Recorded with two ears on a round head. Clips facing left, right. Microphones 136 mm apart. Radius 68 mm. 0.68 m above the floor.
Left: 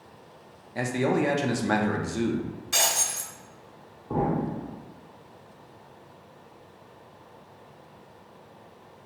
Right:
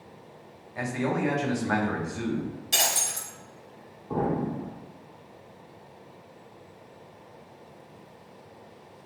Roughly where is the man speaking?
Left.